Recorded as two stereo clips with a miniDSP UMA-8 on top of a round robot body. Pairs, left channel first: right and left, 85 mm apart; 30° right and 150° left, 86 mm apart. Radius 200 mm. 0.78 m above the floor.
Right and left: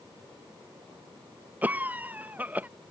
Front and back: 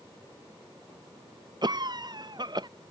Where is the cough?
155° left.